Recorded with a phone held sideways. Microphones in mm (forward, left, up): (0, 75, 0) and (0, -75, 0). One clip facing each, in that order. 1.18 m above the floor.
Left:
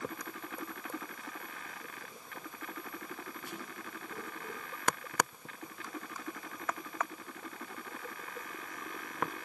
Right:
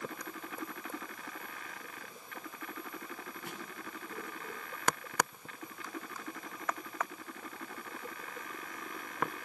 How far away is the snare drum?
About 8 m.